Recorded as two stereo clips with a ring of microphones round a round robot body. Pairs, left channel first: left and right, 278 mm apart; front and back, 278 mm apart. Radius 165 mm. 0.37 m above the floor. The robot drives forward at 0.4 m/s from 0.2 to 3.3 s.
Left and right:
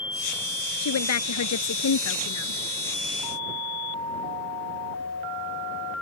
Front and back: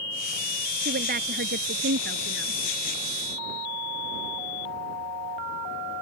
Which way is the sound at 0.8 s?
115° left.